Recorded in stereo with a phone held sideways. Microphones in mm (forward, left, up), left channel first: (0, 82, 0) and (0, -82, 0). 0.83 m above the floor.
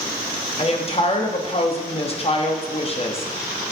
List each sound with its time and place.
0.6 s a woman speaking: 40° left (ahead or behind), 0.9 m